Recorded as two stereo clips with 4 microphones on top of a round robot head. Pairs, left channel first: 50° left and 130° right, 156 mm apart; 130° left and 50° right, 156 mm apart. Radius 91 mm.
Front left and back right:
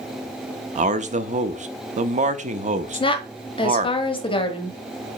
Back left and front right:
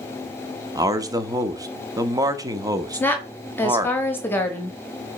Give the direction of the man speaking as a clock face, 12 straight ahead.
4 o'clock.